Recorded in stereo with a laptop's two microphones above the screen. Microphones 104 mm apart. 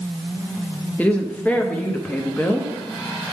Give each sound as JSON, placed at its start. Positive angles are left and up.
{"t": 1.0, "sound": "a woman speaking", "side_deg": 15, "distance_m": 0.8}